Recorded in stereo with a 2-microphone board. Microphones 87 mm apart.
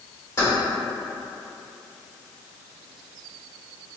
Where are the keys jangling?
40° left (ahead or behind), 1.9 m.